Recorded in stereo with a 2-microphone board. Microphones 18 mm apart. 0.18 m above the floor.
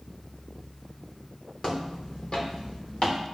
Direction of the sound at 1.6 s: 55° left (ahead or behind).